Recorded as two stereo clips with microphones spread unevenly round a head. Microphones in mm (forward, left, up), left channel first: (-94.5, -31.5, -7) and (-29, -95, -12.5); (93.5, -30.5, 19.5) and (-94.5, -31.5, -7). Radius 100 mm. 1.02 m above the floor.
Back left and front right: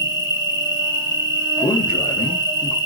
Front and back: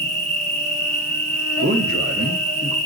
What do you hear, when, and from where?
0.0 s an insect: 85° right, 1.3 m
1.6 s a man speaking: 150° left, 0.5 m